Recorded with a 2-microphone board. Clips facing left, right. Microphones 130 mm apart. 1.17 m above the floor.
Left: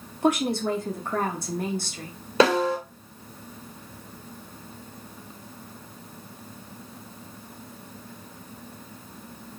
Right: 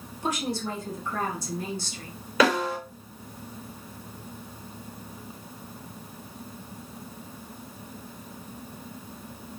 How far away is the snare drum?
About 3.5 m.